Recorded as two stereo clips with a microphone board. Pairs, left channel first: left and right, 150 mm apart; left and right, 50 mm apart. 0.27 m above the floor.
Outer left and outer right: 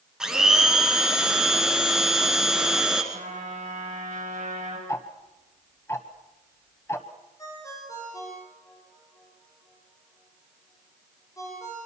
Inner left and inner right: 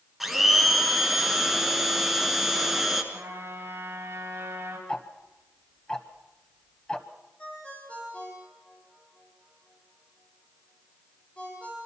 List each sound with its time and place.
0.2 s a blender: 5° right (ahead or behind), 2.5 m
3.1 s a trumpet: 55° right (ahead or behind), 6.5 m
4.9 s ticking: 20° left (ahead or behind), 1.4 m
7.4 s a ringtone: 20° left (ahead or behind), 8 m